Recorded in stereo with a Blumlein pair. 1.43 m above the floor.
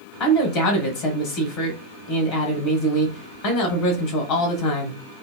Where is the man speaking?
35° left, 1.0 m.